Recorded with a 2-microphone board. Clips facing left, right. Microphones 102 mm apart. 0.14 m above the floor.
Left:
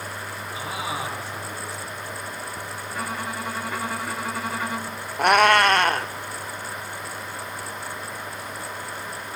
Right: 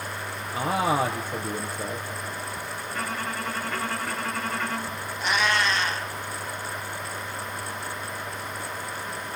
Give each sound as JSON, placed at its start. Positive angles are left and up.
{"t": 0.5, "sound": "a man speaking", "side_deg": -50, "distance_m": 4.0}
{"t": 2.9, "sound": "a violin", "side_deg": 10, "distance_m": 1.2}
{"t": 5.2, "sound": "a cat meowing", "side_deg": 60, "distance_m": 0.7}